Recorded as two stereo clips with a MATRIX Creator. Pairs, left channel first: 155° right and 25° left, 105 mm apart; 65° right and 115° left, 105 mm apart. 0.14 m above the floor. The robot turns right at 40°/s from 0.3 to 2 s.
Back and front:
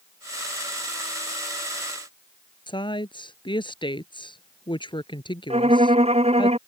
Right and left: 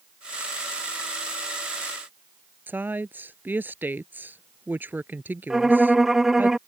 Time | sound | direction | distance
2.7 | a woman speaking | straight behind | ?
5.5 | a violin | 25° left | ?